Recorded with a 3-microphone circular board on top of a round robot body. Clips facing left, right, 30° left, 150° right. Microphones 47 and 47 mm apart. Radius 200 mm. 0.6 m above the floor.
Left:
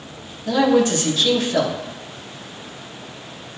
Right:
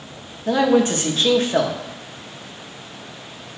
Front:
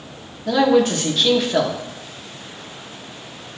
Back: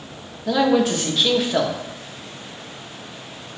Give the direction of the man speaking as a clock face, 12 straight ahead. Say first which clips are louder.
Even, front 2 dB; 2 o'clock.